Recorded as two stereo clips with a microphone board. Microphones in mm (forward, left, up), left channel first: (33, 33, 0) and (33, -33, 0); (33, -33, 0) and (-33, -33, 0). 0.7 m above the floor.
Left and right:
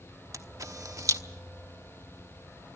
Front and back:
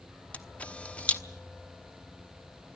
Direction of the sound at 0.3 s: 65° right.